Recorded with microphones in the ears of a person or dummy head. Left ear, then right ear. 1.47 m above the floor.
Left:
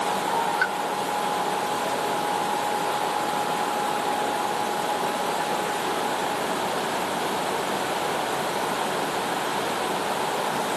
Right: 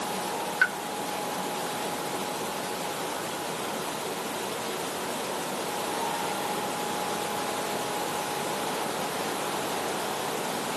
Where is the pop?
15° right (ahead or behind).